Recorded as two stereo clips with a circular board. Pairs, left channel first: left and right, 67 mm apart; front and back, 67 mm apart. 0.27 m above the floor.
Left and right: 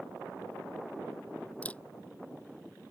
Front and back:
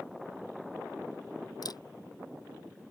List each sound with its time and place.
1.6 s a camera shutter: 20° left